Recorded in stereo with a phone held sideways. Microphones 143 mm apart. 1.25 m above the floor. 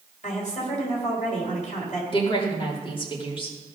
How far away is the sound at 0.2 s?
About 4 m.